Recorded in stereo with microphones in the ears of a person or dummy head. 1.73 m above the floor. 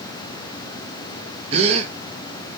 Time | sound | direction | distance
1.5 | a gasp | 35° right (ahead or behind) | 0.5 m